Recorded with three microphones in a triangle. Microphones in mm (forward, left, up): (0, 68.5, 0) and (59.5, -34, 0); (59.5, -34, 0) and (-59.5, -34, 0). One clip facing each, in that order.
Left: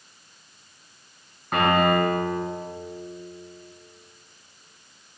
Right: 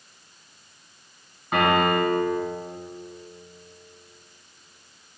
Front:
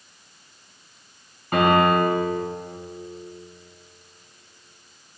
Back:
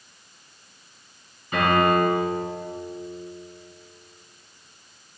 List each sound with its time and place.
1.5 s a piano: 30° left, 3.5 m